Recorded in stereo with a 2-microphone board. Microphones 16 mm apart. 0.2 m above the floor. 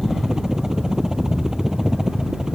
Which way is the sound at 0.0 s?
35° right (ahead or behind).